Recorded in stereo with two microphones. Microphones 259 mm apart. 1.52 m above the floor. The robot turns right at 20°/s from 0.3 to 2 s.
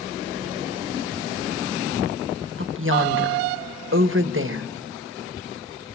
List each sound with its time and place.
2.6 s a woman speaking: 50° right (ahead or behind), 1.4 m